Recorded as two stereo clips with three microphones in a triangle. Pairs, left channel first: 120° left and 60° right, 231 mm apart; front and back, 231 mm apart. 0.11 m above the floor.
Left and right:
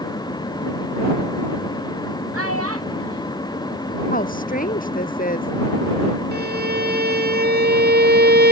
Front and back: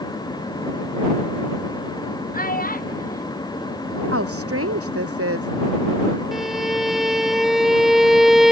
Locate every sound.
2.3 s a child speaking: 50° right
4.1 s a woman speaking: 170° left
6.3 s a violin: 90° right